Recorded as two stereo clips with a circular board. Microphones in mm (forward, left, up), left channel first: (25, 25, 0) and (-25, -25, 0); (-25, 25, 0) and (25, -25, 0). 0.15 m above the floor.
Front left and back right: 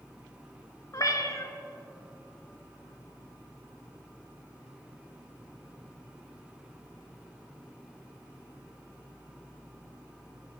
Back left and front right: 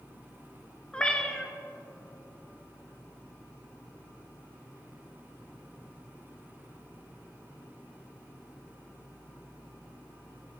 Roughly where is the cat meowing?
Ahead left.